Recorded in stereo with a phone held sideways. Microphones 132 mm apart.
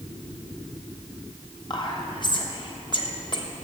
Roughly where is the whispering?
Left.